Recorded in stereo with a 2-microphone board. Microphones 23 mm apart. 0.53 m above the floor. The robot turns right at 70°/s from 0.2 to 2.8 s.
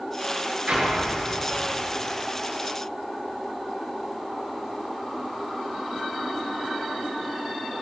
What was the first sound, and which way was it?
An explosion, 60° right.